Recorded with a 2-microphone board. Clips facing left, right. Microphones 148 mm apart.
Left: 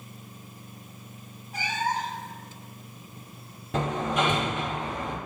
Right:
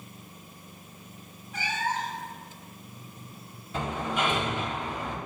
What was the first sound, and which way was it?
A cat meowing, 40° left (ahead or behind).